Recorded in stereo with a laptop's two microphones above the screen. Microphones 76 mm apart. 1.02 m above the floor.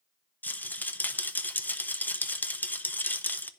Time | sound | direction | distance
0.4 | a rattle | 25° left (ahead or behind) | 0.6 m